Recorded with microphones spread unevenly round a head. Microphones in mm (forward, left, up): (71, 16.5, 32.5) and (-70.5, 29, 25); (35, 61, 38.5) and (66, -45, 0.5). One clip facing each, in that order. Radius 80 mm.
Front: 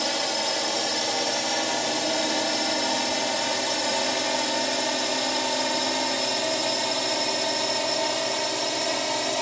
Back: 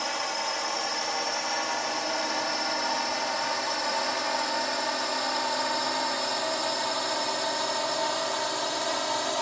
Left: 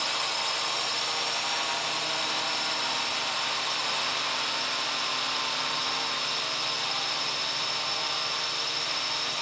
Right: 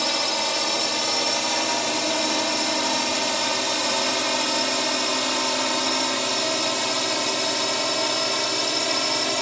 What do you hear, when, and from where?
0.0 s a drone: 60° right; by 9.4 s 80° right